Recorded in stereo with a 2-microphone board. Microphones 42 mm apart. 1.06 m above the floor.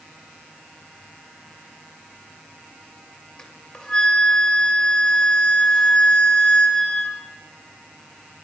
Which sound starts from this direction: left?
A flute, at 3.4 s.